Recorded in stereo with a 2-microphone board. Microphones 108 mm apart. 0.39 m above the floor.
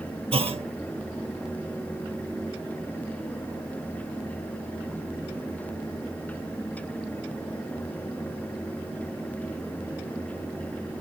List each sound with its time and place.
0.3 s a clunk: 60° right (ahead or behind), 0.6 m